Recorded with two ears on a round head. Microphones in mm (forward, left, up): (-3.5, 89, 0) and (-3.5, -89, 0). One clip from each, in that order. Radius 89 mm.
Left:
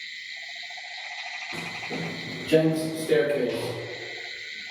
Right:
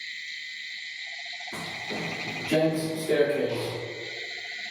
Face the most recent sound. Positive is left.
turn(degrees=45)  # may be behind; listen again after turning